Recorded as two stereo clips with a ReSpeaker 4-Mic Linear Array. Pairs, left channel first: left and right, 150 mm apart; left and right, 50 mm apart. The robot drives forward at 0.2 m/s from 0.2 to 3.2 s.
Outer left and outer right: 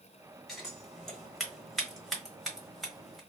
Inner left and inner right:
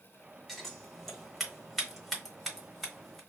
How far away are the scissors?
About 1.1 m.